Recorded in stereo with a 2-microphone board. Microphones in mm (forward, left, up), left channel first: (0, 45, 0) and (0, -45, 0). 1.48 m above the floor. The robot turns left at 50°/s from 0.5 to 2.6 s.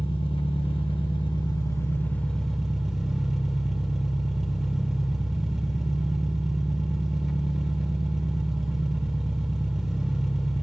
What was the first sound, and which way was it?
An engine running, 100° left.